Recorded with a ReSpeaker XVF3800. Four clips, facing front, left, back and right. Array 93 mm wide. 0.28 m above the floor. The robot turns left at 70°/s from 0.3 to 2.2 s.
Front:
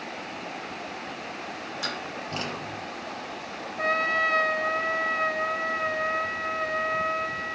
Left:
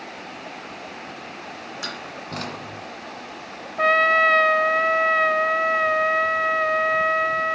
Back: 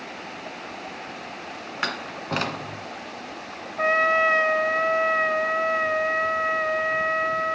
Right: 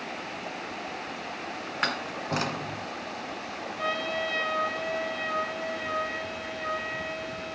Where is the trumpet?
115° left, 0.6 m.